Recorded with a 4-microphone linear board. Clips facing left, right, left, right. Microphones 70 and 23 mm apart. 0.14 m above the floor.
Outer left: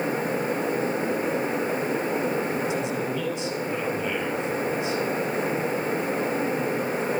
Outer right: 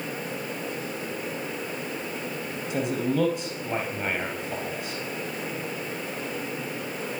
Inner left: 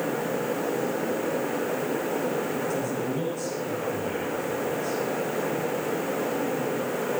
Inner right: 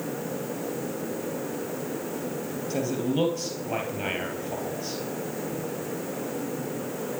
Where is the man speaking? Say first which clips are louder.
Even, inner right 1 dB; 50° right (ahead or behind), 3 m.